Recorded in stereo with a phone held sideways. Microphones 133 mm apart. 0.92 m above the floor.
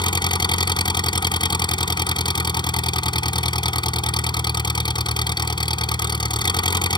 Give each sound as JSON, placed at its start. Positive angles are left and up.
{"t": 0.0, "sound": "an engine running", "side_deg": 35}